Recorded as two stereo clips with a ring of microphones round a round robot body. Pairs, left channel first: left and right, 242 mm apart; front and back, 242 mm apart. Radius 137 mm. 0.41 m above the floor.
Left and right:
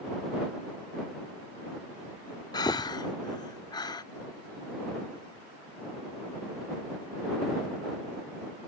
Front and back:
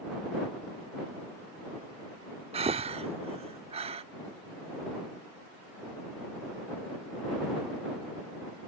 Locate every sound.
2.5 s breathing: 145° left